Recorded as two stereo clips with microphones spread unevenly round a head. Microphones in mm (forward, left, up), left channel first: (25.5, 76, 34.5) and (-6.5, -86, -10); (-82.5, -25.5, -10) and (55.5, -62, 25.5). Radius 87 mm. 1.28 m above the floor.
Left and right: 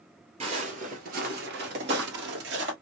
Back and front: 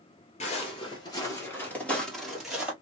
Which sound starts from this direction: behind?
Footsteps, at 0.4 s.